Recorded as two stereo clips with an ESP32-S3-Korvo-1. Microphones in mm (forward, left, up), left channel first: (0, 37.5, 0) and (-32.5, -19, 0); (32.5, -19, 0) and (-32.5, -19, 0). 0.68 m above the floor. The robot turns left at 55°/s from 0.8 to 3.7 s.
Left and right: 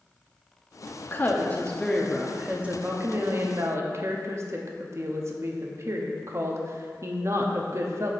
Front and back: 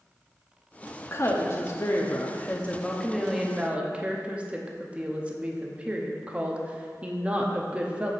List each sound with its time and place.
1.0 s a woman speaking: 30° left, 0.7 m; by 8.1 s 115° right, 0.7 m